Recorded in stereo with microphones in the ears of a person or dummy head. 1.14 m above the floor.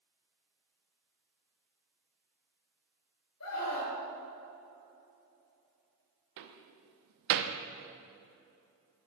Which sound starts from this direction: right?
A door slam, at 6.4 s.